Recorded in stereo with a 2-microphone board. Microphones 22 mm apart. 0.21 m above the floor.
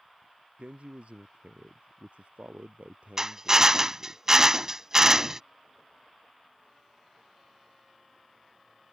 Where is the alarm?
I don't hear an alarm.